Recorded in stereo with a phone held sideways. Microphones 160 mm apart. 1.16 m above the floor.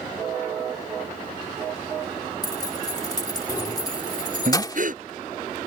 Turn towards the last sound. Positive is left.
turn(degrees=-60)  # may be behind; listen again after turning